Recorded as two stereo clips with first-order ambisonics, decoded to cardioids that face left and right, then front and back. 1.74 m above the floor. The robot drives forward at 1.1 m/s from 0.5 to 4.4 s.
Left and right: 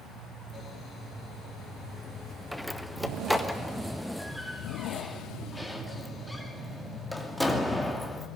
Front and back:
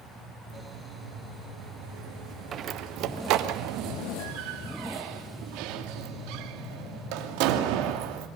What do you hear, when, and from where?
2.5 s a door slam: straight behind, 0.8 m